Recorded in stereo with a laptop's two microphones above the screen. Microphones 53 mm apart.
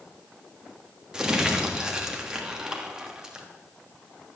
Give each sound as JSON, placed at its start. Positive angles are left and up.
{"t": 1.1, "sound": "crumpling", "side_deg": -10, "distance_m": 1.2}